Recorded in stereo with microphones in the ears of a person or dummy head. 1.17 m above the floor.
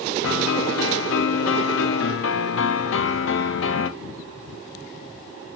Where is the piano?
65° left (ahead or behind), 1.1 m.